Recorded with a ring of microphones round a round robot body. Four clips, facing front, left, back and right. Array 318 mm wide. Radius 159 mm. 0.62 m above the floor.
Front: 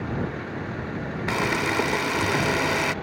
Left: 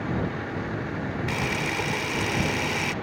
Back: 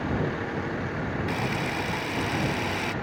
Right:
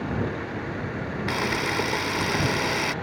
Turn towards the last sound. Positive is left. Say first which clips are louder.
# right 5 dB, front 9 dB
turn(degrees=-15)